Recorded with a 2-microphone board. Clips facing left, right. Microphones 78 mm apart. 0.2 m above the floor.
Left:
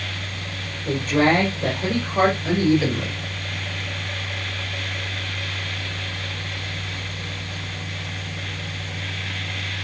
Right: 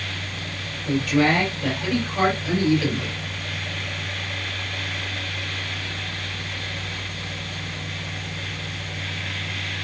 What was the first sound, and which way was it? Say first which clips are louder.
A woman speaking: left 1 dB; 40° left (ahead or behind).